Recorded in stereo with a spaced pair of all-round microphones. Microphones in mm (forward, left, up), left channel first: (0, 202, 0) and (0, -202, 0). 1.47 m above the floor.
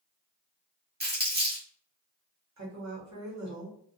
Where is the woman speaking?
40° right (ahead or behind), 1.0 m.